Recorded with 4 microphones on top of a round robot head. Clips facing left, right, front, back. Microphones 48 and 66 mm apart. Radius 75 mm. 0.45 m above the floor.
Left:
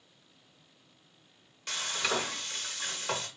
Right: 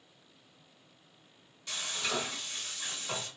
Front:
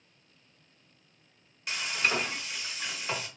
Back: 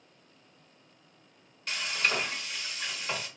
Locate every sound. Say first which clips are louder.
1.7 s frying: left 3 dB, front 1 dB; 80° left, 1.0 m